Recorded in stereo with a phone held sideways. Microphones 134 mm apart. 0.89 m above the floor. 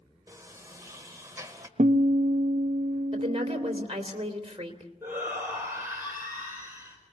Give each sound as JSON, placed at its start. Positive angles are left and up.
{"t": 0.3, "sound": "a sliding door", "side_deg": -25, "distance_m": 1.4}
{"t": 1.8, "sound": "a guitar", "side_deg": -70, "distance_m": 0.5}
{"t": 3.1, "sound": "a woman speaking", "side_deg": -45, "distance_m": 3.0}
{"t": 5.0, "sound": "a shout", "side_deg": -20, "distance_m": 4.0}